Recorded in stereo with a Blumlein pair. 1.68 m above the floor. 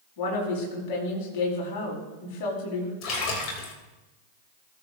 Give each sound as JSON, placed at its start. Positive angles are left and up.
{"t": 0.2, "sound": "a woman speaking", "azimuth_deg": 45, "distance_m": 4.5}
{"t": 3.0, "sound": "a splash", "azimuth_deg": 35, "distance_m": 3.0}